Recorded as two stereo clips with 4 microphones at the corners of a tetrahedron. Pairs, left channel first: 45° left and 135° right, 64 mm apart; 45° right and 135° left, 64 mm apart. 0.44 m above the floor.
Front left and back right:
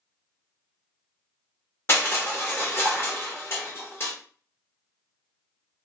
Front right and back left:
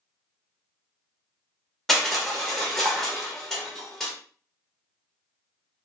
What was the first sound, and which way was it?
Crushing, 35° left.